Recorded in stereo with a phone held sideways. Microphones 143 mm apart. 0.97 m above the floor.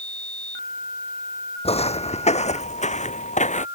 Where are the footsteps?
45° left (ahead or behind); by 3.6 s 55° left (ahead or behind).